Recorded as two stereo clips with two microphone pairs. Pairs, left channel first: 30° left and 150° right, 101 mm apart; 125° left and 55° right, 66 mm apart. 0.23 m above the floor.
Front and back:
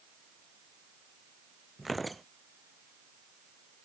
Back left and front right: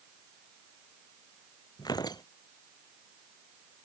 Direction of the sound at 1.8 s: 120° left.